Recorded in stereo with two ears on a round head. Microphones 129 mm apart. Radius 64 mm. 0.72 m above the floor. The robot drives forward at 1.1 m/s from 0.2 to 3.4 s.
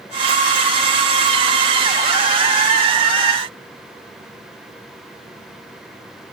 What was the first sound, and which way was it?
Only background noise.